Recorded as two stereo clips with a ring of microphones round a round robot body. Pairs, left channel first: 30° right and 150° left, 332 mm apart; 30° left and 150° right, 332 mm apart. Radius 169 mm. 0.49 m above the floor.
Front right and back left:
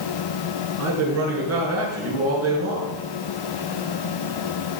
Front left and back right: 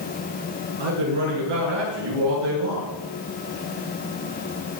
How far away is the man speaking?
About 7 m.